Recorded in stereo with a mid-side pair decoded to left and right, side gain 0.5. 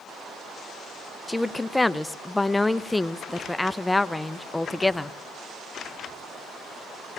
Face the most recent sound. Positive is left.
turn(degrees=15)